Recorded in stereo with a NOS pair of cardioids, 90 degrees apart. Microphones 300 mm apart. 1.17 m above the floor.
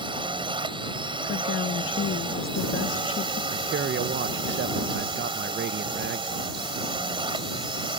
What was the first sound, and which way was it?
A drone, 15° right.